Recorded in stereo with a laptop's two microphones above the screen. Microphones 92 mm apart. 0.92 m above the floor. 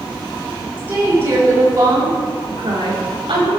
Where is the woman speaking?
20° right (ahead or behind), 2.5 m; by 3.5 s 65° right (ahead or behind), 2.5 m.